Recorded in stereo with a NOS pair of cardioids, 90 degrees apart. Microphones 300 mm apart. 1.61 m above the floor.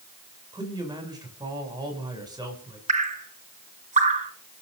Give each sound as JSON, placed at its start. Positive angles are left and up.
{"t": 0.5, "sound": "a man speaking", "azimuth_deg": -15, "distance_m": 8.0}
{"t": 2.9, "sound": "dripping", "azimuth_deg": -25, "distance_m": 3.0}